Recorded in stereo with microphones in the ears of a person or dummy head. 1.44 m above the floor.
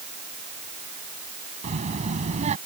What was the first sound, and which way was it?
A child speaking, 40° right (ahead or behind).